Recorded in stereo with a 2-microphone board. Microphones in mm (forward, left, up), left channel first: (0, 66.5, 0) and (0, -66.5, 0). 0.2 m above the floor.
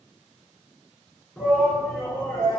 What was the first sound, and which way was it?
A shout, 10° left (ahead or behind).